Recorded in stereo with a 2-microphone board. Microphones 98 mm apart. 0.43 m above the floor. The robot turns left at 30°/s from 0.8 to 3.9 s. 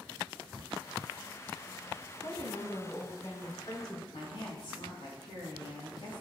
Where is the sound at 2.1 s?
90° left, 3 m; by 4.0 s 40° left, 3 m.